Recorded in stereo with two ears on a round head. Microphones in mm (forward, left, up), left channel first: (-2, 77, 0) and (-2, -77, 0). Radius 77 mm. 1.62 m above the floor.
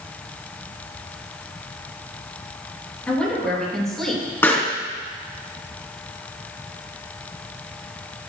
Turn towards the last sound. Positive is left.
turn(degrees=15)  # may be behind; listen again after turning